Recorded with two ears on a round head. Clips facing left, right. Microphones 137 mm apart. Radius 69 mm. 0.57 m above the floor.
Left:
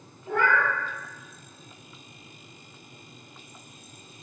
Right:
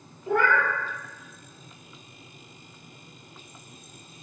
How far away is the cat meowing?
About 0.9 m.